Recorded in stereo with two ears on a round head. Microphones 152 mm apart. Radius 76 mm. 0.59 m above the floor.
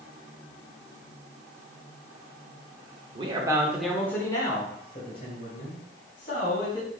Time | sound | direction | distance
3.1 | a man speaking | 35° right (ahead or behind) | 1.4 m